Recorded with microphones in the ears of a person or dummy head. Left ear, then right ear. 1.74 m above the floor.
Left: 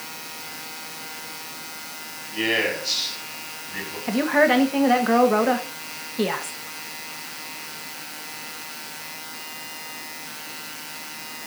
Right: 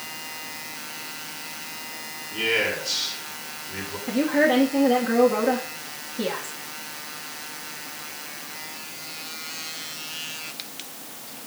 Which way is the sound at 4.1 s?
45° left (ahead or behind).